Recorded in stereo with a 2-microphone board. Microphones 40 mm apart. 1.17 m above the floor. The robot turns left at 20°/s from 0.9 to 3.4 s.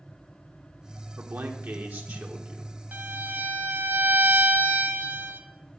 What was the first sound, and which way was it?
A man speaking, 105° right.